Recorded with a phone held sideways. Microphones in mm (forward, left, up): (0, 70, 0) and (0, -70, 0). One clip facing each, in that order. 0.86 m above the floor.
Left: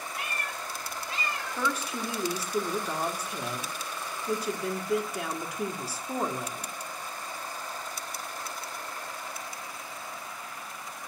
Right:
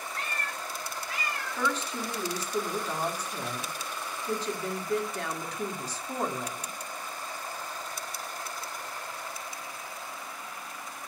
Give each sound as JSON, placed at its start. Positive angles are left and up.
{"t": 0.1, "sound": "a cat meowing", "side_deg": 10, "distance_m": 1.4}
{"t": 1.6, "sound": "a woman speaking", "side_deg": 10, "distance_m": 1.7}